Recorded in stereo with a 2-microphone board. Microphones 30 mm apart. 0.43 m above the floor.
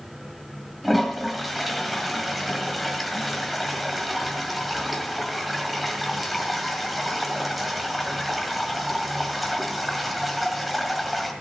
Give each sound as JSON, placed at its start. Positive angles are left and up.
{"t": 0.8, "sound": "a toilet flushing", "side_deg": 0, "distance_m": 2.0}